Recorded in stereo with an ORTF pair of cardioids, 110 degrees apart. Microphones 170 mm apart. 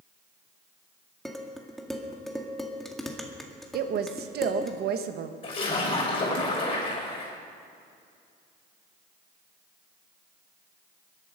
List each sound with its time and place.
1.2 s dishes clattering: straight ahead, 2 m
3.7 s a woman speaking: 60° right, 1.5 m
5.4 s a splash: 30° left, 6 m